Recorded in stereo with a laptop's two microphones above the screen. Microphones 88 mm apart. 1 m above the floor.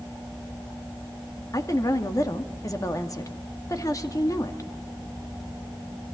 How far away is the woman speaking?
About 2.0 m.